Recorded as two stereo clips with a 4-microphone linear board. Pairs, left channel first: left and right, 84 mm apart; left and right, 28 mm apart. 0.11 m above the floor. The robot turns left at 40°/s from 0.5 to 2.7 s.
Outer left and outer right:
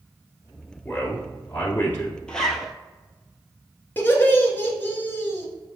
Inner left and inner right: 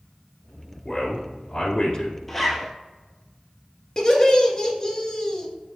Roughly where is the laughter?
Left.